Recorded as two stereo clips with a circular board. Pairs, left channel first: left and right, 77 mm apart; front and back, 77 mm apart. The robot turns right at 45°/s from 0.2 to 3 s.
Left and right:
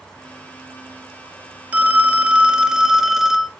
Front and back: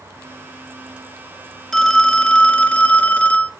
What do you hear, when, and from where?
1.7 s a phone ringing: 75° right, 0.8 m; by 3.5 s 15° right, 0.8 m